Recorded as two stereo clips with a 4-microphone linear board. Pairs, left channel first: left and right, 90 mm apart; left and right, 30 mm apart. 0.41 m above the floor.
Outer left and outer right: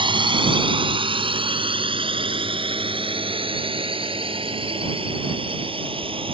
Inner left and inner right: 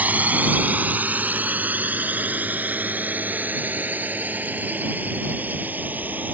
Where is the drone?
65° right (ahead or behind); by 6.3 s 80° right.